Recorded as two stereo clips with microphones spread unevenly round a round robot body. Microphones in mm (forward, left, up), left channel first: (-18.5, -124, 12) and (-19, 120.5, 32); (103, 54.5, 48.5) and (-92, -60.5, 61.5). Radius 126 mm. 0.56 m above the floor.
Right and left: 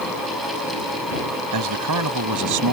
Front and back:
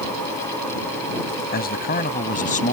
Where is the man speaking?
80° left; by 2.7 s 90° left.